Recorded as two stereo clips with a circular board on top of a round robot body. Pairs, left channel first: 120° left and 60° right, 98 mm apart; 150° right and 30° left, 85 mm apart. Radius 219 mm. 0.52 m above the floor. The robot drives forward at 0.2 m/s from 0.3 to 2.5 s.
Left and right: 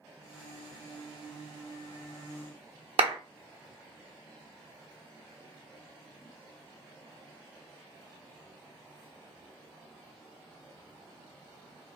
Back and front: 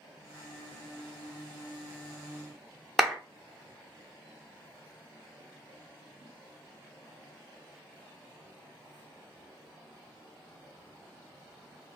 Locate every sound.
3.0 s a clap: 60° right, 0.9 m